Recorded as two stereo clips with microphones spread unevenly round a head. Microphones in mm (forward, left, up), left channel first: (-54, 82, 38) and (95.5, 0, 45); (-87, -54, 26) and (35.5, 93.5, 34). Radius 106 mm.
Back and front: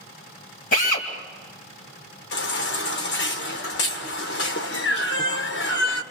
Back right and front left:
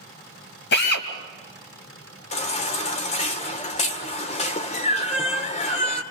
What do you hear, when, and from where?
0.7 s a drill: 160° right, 2.5 m
2.3 s a baby crying: 175° left, 2 m